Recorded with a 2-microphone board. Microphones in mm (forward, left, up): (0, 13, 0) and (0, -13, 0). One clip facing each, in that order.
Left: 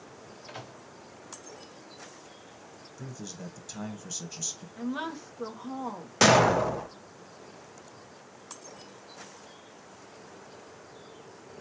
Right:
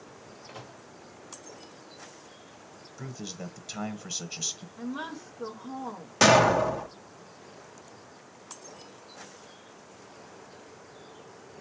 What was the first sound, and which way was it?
A microwave, 85° left.